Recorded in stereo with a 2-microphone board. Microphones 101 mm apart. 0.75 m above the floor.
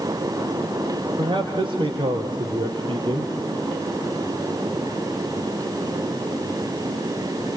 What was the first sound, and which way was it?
A man speaking, 55° right (ahead or behind).